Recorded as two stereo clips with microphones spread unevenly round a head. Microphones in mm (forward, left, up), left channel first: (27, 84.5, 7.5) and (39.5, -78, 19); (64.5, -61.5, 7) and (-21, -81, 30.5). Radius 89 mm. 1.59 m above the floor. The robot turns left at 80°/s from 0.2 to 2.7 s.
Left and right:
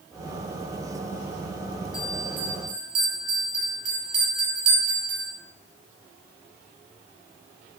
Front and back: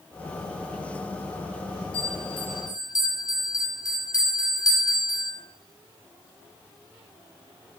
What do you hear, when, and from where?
1.9 s a bell: 30° left, 5 m; by 5.3 s 35° right, 5 m